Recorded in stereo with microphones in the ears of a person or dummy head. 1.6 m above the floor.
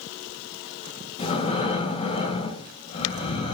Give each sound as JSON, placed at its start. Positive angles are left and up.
{"t": 1.2, "sound": "breathing", "side_deg": 30, "distance_m": 1.9}